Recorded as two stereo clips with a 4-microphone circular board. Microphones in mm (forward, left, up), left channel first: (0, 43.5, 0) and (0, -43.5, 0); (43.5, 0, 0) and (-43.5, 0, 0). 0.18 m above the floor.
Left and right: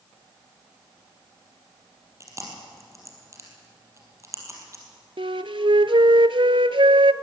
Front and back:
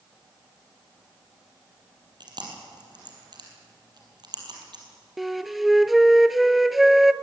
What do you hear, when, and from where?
2.2 s chewing: 145° right, 5 m
5.2 s a flute: 90° right, 0.6 m